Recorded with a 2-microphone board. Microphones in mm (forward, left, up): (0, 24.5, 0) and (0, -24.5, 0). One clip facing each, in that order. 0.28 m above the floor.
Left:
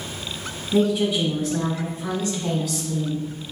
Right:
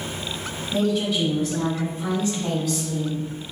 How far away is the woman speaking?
About 1.1 m.